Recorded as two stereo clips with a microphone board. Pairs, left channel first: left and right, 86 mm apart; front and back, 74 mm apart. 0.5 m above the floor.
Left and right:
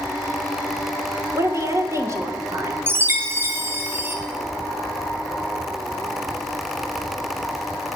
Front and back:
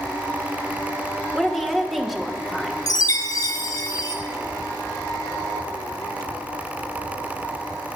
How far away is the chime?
About 1.2 m.